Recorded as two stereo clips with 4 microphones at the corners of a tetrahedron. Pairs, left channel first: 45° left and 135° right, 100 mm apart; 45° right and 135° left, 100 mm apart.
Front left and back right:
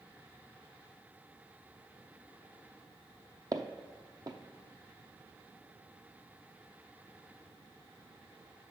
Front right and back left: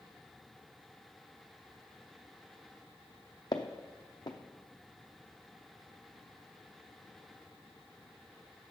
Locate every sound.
3.5 s footsteps: 90° right, 0.5 m